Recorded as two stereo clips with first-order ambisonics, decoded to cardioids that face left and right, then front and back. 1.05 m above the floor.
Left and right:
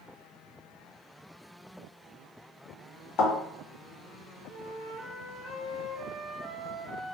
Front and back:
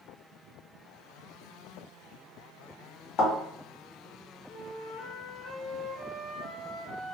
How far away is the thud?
About 1.8 m.